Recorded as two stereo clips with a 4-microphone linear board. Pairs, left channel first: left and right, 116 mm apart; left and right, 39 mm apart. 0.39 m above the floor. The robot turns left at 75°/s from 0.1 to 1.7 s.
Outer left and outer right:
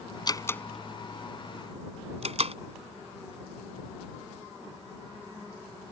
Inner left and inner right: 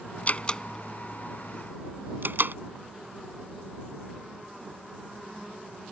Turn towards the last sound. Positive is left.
turn(degrees=-65)  # may be behind; listen again after turning